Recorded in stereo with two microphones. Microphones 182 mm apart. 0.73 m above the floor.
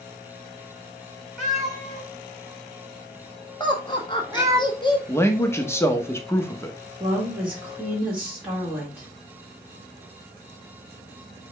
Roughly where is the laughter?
Left.